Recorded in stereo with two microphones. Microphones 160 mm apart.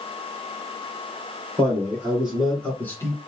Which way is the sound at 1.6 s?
15° right (ahead or behind).